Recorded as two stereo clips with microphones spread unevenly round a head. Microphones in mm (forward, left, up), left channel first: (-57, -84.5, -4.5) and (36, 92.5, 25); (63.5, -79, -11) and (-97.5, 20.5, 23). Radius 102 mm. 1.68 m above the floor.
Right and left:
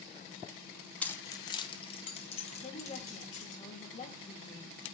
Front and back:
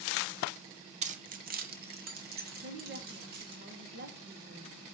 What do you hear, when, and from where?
1.0 s keys jangling: 150° left, 0.7 m; by 3.6 s 175° right, 3 m
2.6 s a woman speaking: straight behind, 2 m